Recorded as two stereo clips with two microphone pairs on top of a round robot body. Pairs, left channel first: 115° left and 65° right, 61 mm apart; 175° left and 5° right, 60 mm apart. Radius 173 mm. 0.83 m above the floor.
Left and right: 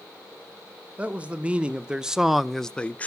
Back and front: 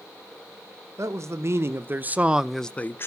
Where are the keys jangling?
I don't hear keys jangling.